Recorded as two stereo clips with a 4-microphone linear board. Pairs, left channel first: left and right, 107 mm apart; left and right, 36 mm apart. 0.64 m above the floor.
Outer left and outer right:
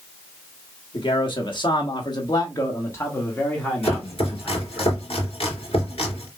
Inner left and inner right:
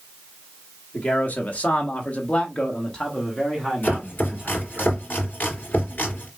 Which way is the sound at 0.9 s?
45° left (ahead or behind).